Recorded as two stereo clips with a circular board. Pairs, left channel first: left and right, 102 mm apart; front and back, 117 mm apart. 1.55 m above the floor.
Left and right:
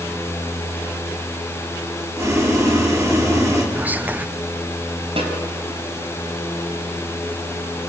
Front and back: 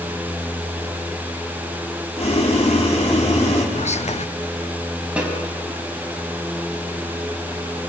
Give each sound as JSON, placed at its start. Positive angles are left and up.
{"t": 2.2, "sound": "boiling", "azimuth_deg": -30, "distance_m": 4.0}
{"t": 3.8, "sound": "whispering", "azimuth_deg": -15, "distance_m": 0.7}
{"t": 5.2, "sound": "a snare drum", "azimuth_deg": -100, "distance_m": 5.0}